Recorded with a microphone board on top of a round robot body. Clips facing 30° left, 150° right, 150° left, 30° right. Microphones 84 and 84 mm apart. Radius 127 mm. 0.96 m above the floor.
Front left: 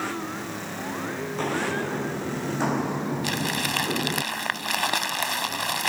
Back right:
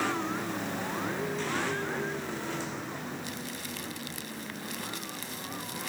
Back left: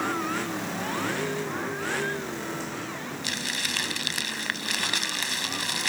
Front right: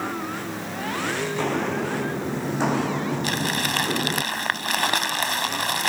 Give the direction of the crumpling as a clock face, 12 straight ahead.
12 o'clock.